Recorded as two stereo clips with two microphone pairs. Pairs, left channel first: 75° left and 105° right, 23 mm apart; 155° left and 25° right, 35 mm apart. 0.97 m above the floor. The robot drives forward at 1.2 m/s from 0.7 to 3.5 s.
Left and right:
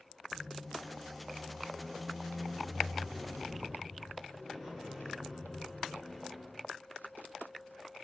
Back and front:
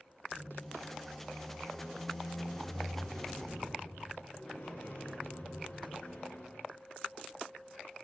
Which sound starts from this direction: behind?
A squeak, at 0.3 s.